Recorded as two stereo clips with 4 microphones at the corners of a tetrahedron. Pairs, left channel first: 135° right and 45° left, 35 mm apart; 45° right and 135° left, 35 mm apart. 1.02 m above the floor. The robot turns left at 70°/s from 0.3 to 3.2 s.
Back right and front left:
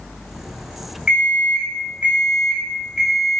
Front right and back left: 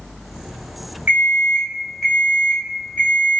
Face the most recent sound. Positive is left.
turn(degrees=-40)